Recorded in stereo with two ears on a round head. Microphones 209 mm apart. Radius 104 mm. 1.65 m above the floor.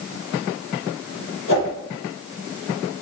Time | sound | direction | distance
1.5 | a whoosh | 55° left (ahead or behind) | 9.5 m